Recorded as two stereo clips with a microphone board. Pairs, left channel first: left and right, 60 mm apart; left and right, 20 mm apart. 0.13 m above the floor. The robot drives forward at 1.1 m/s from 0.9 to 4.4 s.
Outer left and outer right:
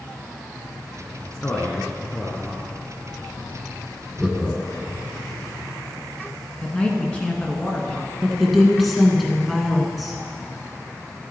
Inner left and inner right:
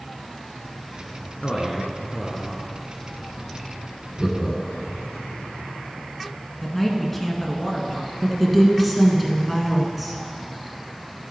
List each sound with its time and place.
1.4 s a man speaking: 25° left (ahead or behind), 1.1 m; by 2.6 s 15° left (ahead or behind), 1.8 m
4.2 s laughter: centre (ahead or behind), 1.1 m
6.6 s a man speaking: 20° left (ahead or behind), 1.5 m
8.2 s a woman speaking: centre (ahead or behind), 1.2 m